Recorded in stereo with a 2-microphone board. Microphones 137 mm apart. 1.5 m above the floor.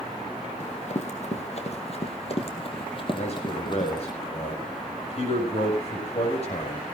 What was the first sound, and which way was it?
Running footsteps, 55° left (ahead or behind).